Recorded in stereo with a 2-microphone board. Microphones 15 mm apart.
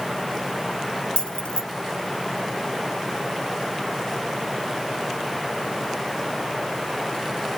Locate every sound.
1.2 s keys jangling: 70° left (ahead or behind), 1.3 m